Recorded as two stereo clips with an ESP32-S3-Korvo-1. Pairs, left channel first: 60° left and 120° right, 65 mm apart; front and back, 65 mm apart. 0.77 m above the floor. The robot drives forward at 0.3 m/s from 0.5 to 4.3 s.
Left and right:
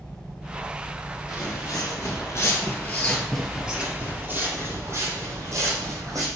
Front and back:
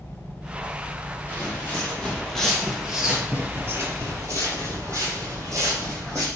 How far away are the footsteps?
About 1.6 m.